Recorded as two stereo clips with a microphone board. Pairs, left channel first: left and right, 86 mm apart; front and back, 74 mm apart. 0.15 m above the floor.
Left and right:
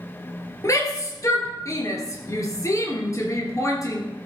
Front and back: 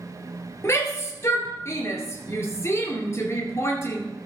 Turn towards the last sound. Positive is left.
turn(degrees=45)